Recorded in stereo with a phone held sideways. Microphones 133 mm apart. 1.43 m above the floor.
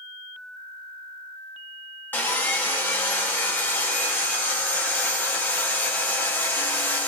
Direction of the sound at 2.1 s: 15° left (ahead or behind).